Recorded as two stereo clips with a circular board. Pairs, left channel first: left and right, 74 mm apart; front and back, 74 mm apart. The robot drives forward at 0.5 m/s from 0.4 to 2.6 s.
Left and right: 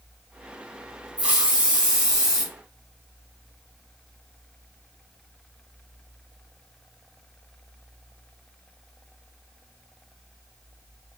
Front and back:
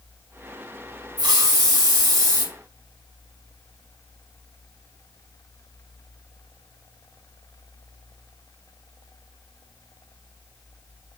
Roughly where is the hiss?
Behind.